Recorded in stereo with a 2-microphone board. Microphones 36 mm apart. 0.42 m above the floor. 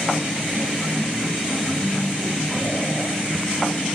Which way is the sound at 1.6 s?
30° right (ahead or behind).